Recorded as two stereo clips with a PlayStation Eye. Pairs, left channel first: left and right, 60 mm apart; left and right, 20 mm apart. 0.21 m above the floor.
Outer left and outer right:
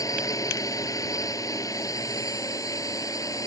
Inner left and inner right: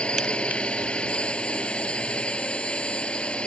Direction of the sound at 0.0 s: 70° left (ahead or behind).